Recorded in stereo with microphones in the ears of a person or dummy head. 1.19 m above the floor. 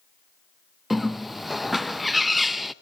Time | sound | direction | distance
0.9 | a bird | centre (ahead or behind) | 0.6 m